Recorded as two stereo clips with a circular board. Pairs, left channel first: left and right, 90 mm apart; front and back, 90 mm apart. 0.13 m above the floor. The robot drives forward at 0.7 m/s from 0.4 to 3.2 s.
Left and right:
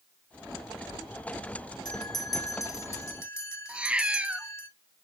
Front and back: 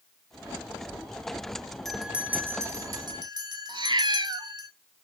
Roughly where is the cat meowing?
Behind.